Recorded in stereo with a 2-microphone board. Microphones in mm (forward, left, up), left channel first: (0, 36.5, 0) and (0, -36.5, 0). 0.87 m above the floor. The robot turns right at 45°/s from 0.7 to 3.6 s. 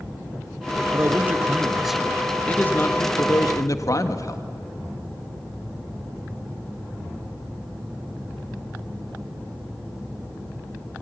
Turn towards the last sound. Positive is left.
turn(degrees=75)